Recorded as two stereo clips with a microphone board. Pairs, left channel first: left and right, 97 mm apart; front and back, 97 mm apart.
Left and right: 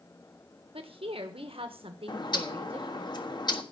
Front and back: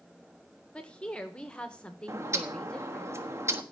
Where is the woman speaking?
80° right, 1.5 m.